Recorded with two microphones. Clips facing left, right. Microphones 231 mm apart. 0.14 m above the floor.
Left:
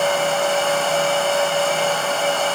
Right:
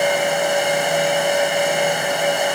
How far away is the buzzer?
No buzzer in this recording.